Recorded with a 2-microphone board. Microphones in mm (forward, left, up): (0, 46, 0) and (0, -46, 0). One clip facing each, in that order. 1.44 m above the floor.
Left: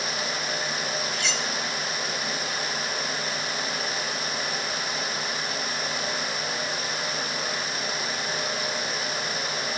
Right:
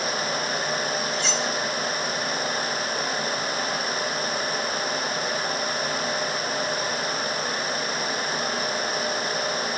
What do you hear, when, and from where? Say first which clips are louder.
1.1 s cutlery clinking: right 4 dB; 35° right (ahead or behind)